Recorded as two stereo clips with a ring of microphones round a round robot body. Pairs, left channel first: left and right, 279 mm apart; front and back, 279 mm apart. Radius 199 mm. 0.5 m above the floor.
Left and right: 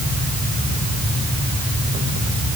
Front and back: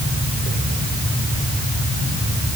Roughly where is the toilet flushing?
I don't hear a toilet flushing.